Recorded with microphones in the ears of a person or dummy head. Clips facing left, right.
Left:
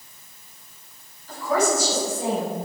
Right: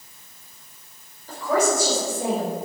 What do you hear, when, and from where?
1.3 s a woman speaking: 45° right (ahead or behind), 4 m; by 2.5 s 60° right (ahead or behind), 5 m